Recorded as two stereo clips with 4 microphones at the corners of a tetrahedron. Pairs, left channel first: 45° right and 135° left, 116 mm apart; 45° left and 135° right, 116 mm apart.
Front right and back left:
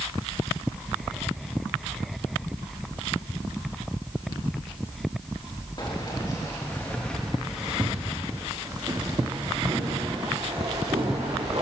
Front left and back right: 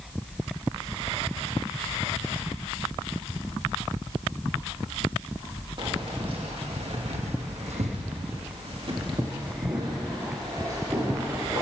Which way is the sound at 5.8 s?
95° right.